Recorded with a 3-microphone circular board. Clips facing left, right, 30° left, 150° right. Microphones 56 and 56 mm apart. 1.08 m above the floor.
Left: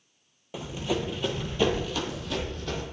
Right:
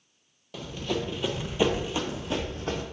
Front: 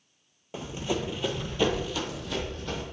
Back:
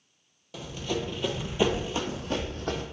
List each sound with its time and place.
0.5 s running footsteps: 40° left, 1.2 m; by 2.8 s 135° right, 1.6 m